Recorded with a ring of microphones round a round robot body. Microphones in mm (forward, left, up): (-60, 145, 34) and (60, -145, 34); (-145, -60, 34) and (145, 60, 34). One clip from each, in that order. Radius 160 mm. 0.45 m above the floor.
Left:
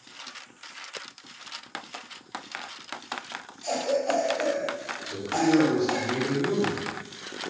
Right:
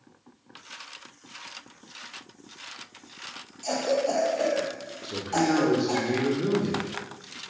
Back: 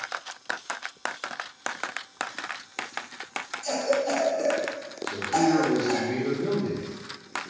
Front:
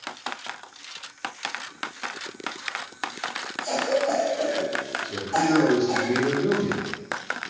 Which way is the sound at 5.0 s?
50° right.